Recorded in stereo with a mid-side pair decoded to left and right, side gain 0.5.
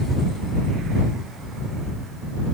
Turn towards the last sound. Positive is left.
No sound to turn to.